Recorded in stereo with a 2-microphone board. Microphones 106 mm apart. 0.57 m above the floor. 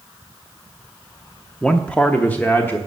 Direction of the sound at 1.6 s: 5° left (ahead or behind).